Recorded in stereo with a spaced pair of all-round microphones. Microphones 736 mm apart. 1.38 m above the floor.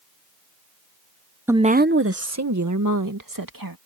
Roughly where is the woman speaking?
Centre.